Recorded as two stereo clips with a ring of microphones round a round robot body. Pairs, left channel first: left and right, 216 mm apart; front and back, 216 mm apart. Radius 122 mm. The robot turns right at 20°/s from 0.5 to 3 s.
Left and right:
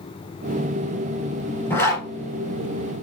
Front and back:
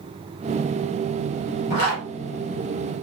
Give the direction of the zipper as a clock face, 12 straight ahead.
12 o'clock.